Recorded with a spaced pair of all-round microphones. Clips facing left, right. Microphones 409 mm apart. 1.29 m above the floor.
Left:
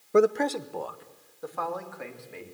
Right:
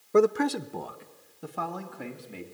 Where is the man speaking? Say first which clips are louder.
Even; centre (ahead or behind), 0.7 m; by 2.4 s 50° right (ahead or behind), 3.5 m.